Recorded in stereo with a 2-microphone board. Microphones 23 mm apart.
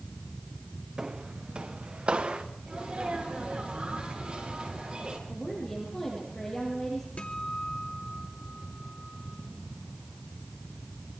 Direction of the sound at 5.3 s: 25° left (ahead or behind).